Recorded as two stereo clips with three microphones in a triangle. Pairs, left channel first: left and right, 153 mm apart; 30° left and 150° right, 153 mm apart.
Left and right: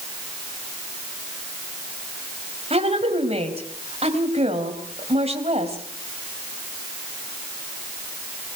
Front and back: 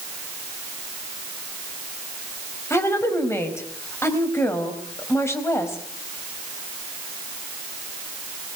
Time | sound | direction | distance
2.7 | a woman speaking | 45° right | 4 m